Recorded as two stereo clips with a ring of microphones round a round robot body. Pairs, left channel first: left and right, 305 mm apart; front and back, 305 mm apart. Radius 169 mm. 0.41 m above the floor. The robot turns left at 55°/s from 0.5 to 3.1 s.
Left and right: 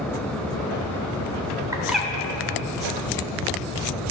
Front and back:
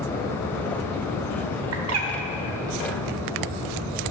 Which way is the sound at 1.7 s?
165° right.